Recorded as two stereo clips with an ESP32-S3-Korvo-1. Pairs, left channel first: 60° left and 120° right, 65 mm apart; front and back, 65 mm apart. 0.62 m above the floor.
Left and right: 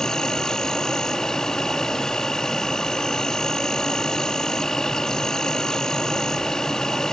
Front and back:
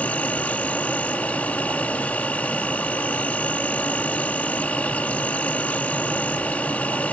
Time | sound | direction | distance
0.0 | an insect | 5° right | ?